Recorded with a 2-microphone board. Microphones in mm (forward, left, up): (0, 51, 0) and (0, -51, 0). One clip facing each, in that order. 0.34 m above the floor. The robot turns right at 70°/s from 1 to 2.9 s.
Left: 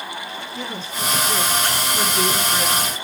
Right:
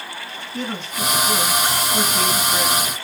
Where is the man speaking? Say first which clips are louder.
Right 5 dB; 105° right, 5 m; by 2.9 s 25° left, 5 m.